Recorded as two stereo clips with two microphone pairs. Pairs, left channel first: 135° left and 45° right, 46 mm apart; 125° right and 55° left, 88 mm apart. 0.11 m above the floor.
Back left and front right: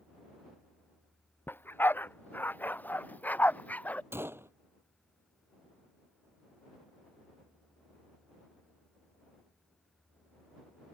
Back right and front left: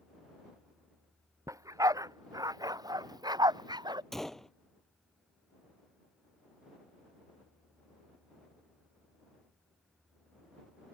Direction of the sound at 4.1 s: 40° right.